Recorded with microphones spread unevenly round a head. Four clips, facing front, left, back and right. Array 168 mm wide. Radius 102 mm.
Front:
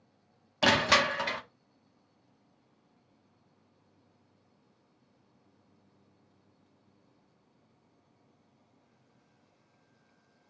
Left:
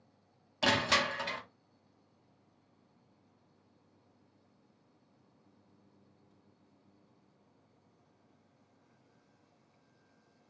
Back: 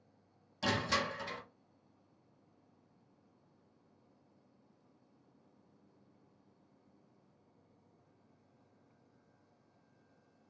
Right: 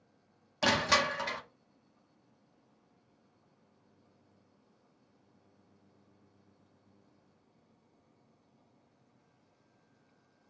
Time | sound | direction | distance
0.6 | crushing | 10° right | 0.5 m